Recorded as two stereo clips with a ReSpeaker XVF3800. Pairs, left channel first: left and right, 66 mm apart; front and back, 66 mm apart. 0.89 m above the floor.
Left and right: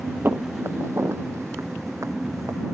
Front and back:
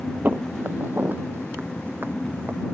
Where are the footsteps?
130° right; by 2.8 s 125° right.